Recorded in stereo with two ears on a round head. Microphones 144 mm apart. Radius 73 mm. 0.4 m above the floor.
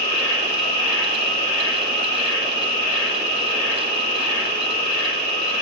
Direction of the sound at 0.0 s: 55° left (ahead or behind).